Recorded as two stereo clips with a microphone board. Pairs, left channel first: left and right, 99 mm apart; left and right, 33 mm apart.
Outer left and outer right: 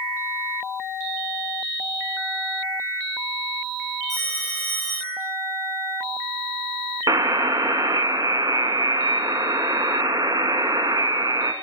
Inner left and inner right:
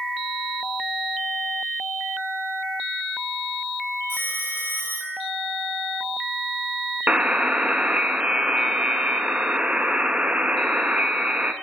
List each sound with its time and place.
4.1 s a phone ringing: 55° right (ahead or behind), 4.5 m
7.1 s a buzzer: 40° right (ahead or behind), 0.5 m